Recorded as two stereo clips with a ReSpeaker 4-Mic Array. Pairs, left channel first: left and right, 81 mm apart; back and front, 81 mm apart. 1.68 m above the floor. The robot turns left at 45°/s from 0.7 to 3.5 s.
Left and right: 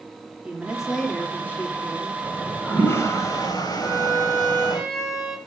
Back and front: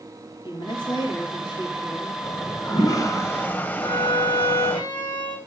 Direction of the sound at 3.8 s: Straight behind.